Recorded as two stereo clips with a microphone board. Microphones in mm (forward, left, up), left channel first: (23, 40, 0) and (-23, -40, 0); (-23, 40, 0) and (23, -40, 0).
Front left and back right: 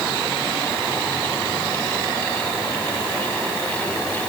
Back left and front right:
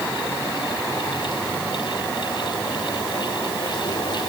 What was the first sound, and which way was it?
Only background noise.